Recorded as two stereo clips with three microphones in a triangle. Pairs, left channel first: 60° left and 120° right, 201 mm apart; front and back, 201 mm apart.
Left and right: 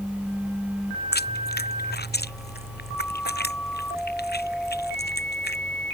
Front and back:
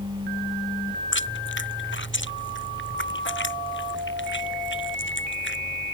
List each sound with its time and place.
1.1 s chewing: 20° left